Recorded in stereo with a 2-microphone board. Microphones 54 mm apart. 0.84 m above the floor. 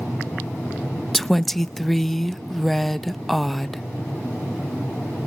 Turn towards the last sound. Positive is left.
turn(degrees=5)  # may be behind; listen again after turning